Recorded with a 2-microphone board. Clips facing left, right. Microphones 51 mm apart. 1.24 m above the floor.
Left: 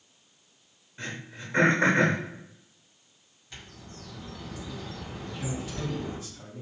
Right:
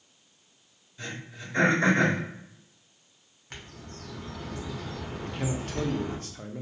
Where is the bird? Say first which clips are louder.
Right 2 dB; 55° right (ahead or behind), 0.8 m.